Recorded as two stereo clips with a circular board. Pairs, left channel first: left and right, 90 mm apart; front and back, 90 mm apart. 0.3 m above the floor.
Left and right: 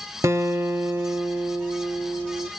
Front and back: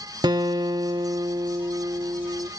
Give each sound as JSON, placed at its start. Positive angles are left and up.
{"t": 0.2, "sound": "a guitar", "azimuth_deg": -145, "distance_m": 0.6}